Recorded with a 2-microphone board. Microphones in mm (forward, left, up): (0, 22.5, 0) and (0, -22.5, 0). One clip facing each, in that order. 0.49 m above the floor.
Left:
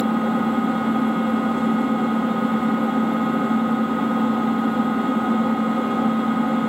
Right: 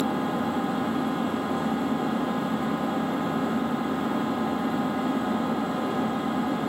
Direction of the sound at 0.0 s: 50° left (ahead or behind).